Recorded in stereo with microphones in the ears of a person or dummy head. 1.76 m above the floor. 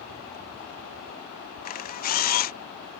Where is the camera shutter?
50° left (ahead or behind).